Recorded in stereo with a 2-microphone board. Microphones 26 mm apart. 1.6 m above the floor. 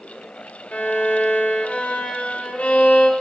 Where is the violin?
70° left (ahead or behind), 3 m.